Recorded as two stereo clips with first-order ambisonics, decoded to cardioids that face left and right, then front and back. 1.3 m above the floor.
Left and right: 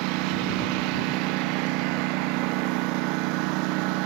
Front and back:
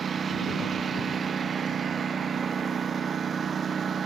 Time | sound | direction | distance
0.0 | a lawn mower | 110° right | ?